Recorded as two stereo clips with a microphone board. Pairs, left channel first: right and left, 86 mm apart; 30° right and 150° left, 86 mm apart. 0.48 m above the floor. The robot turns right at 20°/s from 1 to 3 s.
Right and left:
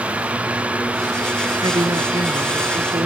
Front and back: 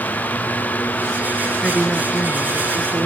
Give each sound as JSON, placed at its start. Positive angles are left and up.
{"t": 1.6, "sound": "a woman speaking", "azimuth_deg": 55}